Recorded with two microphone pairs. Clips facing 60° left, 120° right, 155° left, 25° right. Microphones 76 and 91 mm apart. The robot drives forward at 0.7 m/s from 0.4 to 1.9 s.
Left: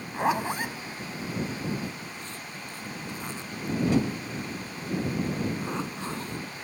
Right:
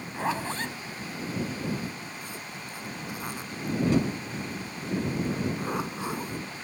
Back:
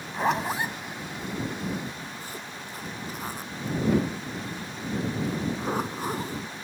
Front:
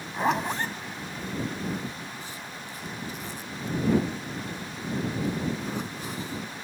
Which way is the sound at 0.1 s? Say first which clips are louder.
Left 4 dB, even; 55° left.